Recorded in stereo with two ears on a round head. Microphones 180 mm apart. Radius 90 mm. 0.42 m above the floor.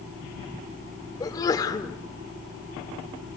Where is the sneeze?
20° left (ahead or behind), 1.4 m.